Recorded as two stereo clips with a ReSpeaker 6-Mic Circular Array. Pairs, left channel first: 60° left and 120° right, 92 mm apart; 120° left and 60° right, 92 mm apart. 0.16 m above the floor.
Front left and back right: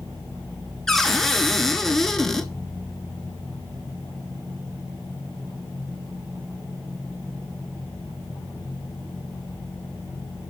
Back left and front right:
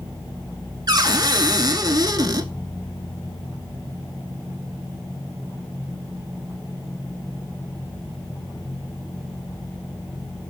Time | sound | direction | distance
0.9 | a cupboard door | 25° right | 0.6 m